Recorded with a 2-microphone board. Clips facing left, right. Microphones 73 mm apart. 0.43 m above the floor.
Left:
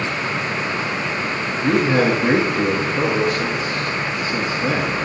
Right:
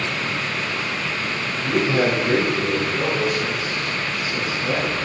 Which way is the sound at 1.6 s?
70° left (ahead or behind).